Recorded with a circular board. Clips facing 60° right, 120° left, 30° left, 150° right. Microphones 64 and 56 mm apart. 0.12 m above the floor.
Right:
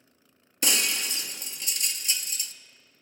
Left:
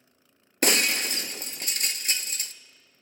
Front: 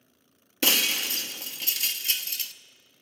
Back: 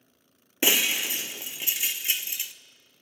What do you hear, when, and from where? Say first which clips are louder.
0.6 s breaking glass: left 5 dB, back 1 dB; 145° left, 0.5 m